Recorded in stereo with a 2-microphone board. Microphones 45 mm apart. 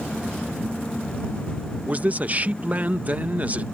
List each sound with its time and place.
1.9 s a man speaking: 35° right (ahead or behind)